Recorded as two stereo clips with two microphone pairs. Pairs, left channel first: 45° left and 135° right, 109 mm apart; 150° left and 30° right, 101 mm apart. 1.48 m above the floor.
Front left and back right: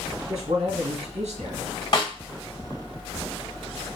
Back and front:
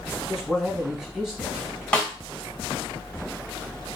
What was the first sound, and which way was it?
A man speaking, 120° right.